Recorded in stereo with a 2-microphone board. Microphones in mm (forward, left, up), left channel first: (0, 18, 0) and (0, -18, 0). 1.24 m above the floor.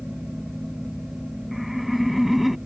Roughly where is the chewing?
I don't hear chewing.